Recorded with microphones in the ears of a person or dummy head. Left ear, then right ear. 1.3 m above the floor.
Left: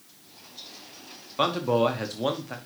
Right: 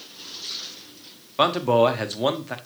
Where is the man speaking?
15° right (ahead or behind), 0.9 m.